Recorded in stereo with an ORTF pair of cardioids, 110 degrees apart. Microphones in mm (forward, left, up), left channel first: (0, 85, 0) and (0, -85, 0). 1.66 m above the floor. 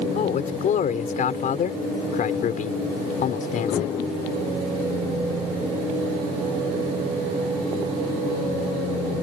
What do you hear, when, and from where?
0.1 s a man speaking: 50° left